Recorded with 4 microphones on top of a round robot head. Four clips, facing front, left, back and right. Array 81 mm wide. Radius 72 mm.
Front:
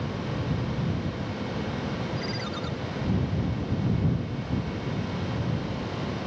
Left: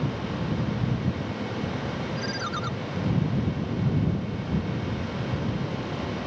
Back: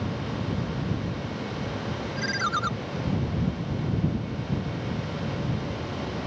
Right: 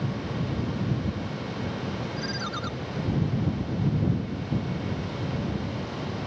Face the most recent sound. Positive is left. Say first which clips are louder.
# left 2 dB, back 5 dB
turn(degrees=170)